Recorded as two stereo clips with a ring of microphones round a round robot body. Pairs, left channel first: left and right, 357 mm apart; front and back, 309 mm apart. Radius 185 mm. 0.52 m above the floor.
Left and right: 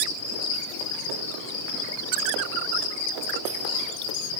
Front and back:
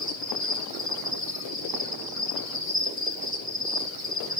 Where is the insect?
100° left, 8.5 m.